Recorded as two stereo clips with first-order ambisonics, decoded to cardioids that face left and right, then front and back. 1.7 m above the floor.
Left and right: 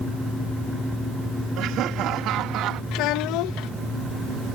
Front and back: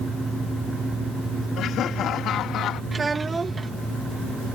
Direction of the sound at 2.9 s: 105° left.